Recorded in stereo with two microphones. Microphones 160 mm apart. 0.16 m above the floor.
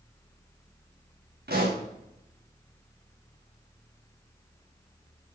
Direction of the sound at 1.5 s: 90° right.